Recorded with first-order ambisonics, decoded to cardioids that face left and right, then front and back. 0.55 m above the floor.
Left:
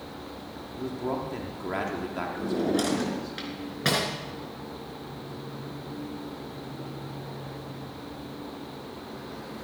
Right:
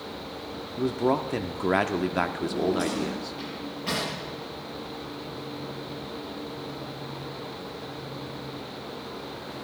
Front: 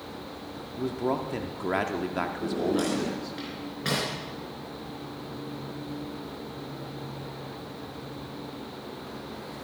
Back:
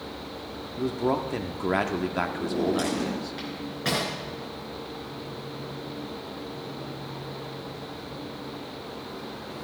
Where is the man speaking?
105° right, 0.6 m.